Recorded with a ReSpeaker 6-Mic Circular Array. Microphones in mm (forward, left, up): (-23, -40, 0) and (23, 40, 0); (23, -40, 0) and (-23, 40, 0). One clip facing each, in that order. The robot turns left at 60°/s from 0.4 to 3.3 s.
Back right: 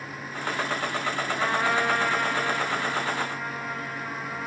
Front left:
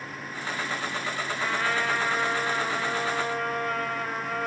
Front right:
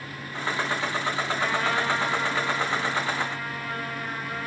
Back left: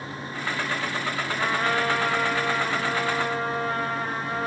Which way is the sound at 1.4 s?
175° right.